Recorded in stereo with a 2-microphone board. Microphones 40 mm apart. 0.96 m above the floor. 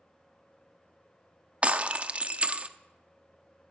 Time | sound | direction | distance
1.6 | breaking glass | 35° right (ahead or behind) | 0.6 m